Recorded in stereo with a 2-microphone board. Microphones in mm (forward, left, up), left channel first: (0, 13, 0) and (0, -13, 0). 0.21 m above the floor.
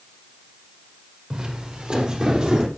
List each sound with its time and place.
1.3 s footsteps: 35° right (ahead or behind), 4.5 m